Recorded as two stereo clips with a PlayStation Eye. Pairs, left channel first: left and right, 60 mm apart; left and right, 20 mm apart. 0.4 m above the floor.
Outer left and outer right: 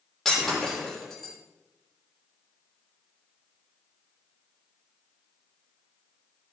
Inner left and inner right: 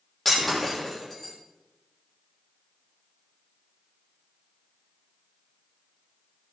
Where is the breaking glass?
5° left (ahead or behind), 7 m.